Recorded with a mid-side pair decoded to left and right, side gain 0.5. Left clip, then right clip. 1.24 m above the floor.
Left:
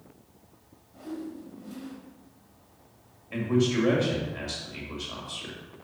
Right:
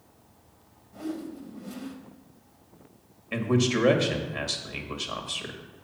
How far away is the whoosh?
About 1.9 m.